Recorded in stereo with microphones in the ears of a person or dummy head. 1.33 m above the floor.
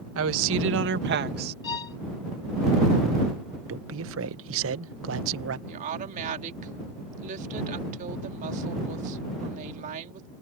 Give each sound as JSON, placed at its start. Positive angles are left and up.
{"t": 0.1, "sound": "a woman speaking", "side_deg": -70}
{"t": 1.6, "sound": "a violin", "side_deg": 25}
{"t": 3.7, "sound": "a man speaking", "side_deg": -70}
{"t": 5.7, "sound": "a woman speaking", "side_deg": -40}